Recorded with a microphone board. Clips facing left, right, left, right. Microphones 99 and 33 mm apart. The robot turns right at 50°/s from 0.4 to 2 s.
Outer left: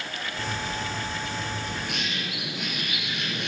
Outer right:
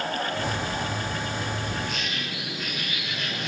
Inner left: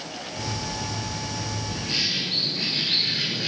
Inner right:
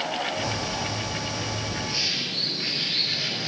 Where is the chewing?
No chewing in this recording.